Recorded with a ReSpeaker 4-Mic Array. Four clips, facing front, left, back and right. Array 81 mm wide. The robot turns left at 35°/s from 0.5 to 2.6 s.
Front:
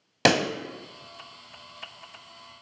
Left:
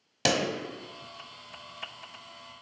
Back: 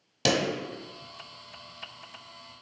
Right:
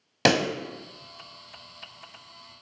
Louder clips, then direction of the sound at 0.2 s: Right 5 dB, front 4 dB; 40° right.